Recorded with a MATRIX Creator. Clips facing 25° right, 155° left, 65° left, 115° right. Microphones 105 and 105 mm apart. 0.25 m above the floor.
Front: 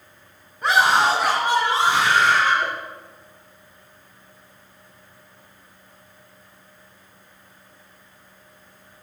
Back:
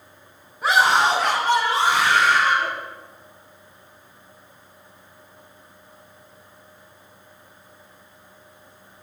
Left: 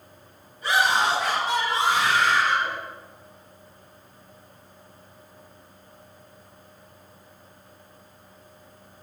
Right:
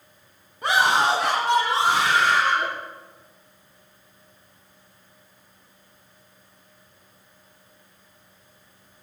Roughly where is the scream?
Behind right.